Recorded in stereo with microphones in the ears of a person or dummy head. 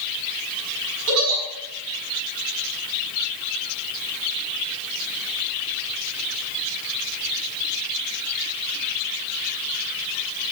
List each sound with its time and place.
1.1 s a giggle: 80° right, 5 m